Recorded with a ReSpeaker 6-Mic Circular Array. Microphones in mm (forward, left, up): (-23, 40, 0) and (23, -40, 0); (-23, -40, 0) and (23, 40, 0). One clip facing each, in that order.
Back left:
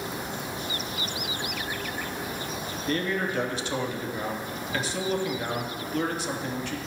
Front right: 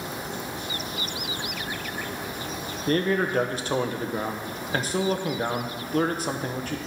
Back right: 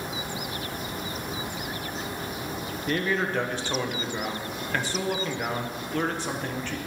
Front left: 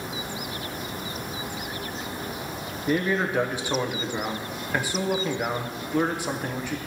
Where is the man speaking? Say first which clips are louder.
Front right 5 dB, front left 3 dB; 20° right, 1.0 m.